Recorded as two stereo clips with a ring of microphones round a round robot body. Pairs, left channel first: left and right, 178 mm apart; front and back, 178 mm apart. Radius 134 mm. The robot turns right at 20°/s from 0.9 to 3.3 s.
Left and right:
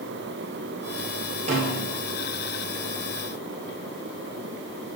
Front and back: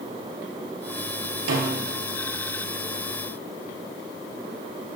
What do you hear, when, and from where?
1.5 s a snare drum: 155° right, 1.5 m; by 2.0 s 145° right, 1.5 m